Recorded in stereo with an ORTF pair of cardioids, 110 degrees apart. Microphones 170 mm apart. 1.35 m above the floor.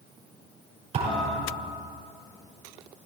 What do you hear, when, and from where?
0.9 s a thud: 45° right, 6 m